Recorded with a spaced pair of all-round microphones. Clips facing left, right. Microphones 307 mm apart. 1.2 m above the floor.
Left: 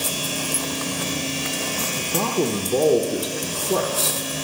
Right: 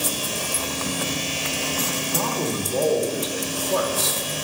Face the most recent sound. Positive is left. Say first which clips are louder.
# left 7 dB
turn(degrees=65)  # may be behind; listen again after turning